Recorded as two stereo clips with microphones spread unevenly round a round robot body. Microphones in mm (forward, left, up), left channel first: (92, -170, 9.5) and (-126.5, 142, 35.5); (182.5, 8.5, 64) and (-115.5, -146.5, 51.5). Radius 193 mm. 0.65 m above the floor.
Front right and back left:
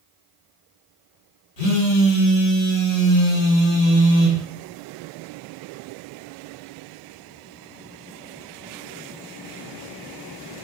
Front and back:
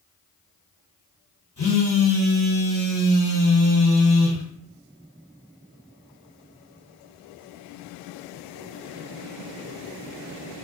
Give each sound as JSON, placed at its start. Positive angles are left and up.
{"t": 1.6, "sound": "a phone buzzing", "azimuth_deg": -40, "distance_m": 1.9}